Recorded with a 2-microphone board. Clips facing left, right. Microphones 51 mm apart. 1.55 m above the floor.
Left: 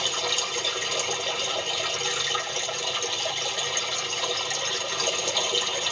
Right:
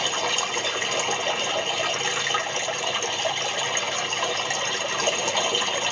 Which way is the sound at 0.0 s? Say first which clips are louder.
Right 3 dB; 35° right (ahead or behind).